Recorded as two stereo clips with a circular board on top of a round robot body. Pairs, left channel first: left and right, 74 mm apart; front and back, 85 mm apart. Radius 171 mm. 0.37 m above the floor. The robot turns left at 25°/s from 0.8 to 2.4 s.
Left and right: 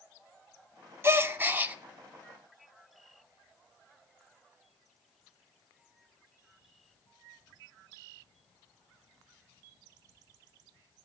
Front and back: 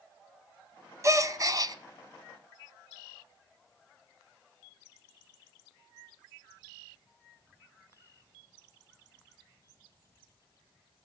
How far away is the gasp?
About 0.8 m.